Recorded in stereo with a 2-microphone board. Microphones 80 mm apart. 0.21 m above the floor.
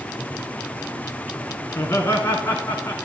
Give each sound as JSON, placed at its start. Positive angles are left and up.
{"t": 1.7, "sound": "laughter", "side_deg": 35, "distance_m": 2.5}